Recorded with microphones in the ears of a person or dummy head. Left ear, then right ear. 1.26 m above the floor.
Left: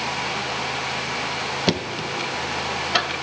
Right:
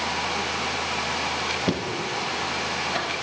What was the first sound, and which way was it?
Knocking, 50° left (ahead or behind).